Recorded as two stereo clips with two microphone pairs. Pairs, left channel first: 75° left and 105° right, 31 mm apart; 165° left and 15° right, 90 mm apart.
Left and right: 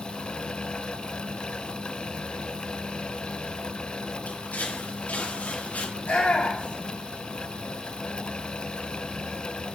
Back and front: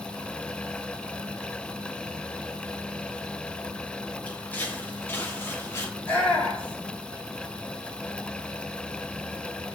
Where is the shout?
95° left, 7 m.